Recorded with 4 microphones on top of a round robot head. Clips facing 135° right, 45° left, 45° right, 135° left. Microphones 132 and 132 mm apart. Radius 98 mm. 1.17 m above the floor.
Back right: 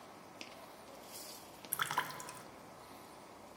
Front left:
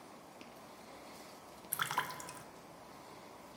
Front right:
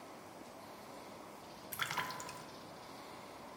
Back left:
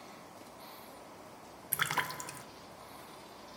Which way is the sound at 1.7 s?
135° left.